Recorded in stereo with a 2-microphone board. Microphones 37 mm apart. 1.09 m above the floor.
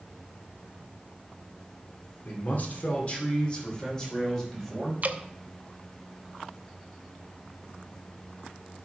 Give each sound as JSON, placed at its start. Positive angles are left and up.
{"t": 2.2, "sound": "a man speaking", "side_deg": 55, "distance_m": 2.5}
{"t": 5.0, "sound": "dripping", "side_deg": -50, "distance_m": 0.6}